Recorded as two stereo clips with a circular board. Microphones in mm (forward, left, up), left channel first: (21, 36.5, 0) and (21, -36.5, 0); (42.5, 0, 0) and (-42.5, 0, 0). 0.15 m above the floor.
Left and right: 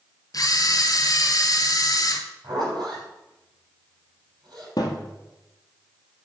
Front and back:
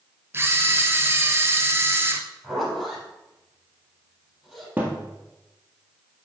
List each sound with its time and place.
0.3 s a camera shutter: 120° left, 0.8 m
2.4 s a zipper: 90° right, 4.5 m
4.8 s a thud: 110° left, 1.6 m